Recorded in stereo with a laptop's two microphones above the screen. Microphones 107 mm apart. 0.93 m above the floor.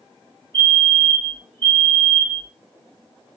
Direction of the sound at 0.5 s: 45° right (ahead or behind).